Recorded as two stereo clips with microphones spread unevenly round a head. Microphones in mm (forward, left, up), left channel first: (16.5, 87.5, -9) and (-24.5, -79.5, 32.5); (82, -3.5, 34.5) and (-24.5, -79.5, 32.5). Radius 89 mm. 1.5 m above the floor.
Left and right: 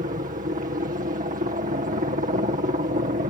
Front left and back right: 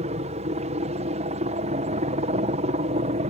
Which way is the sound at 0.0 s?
145° right.